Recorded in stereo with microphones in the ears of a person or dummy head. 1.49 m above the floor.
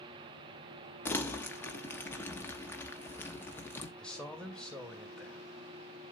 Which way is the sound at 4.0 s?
Centre (ahead or behind).